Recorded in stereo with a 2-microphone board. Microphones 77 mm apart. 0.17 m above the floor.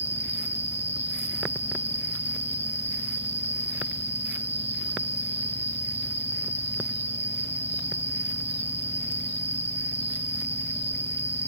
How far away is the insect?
About 1.6 m.